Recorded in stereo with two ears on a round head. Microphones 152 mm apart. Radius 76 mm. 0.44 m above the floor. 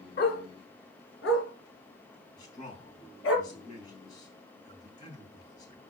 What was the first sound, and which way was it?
A dog barking, 60° left (ahead or behind).